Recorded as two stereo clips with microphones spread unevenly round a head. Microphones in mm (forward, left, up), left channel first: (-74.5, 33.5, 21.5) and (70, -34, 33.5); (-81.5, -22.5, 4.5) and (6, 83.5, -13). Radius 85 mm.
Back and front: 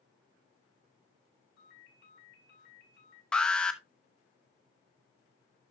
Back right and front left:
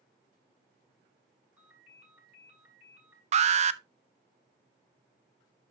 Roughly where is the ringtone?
Behind left.